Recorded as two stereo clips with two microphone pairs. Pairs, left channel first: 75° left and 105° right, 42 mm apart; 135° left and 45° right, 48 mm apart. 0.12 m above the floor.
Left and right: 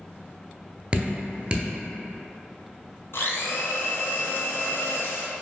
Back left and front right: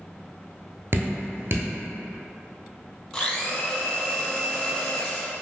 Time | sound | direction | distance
0.9 | dripping | 55° right | 0.7 m
3.1 | a blender | 60° left | 0.6 m